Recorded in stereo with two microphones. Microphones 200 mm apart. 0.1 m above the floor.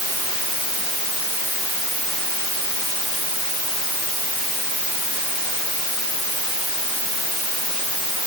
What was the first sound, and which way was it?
Only background noise.